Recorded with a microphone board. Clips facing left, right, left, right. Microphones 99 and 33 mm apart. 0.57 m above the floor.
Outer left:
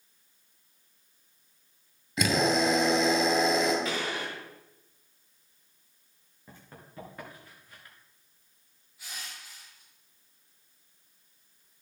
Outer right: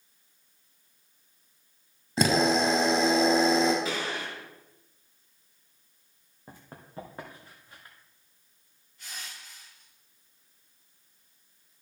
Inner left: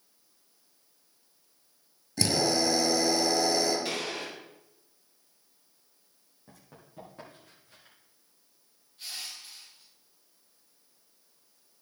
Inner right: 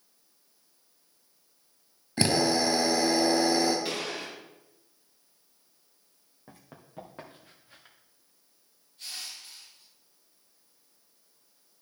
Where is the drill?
35° right (ahead or behind), 1.8 m.